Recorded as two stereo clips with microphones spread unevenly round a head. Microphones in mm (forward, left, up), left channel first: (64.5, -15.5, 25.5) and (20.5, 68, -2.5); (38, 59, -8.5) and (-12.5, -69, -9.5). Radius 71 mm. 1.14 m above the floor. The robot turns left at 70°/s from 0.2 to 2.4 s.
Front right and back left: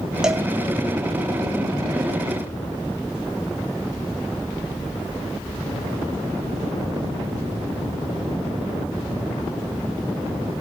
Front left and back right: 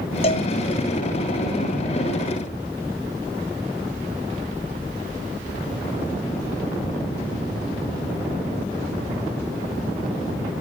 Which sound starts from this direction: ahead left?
A cowbell, at 0.2 s.